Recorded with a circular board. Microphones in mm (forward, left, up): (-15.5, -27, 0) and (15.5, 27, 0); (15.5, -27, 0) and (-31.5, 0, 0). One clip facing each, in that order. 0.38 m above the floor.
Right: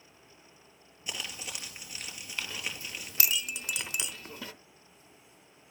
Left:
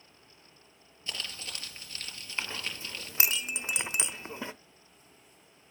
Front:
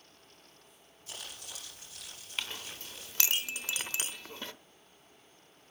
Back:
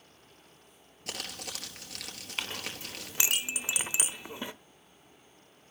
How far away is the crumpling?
About 3.5 m.